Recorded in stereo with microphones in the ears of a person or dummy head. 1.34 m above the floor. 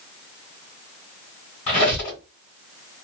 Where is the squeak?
40° left (ahead or behind), 1.8 m.